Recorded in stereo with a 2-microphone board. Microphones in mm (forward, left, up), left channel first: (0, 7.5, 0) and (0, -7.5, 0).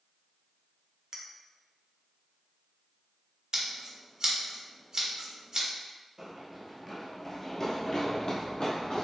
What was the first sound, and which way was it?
A clink, 35° right (ahead or behind).